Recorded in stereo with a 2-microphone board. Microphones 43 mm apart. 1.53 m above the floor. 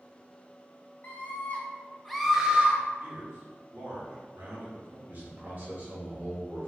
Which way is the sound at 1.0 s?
40° left (ahead or behind).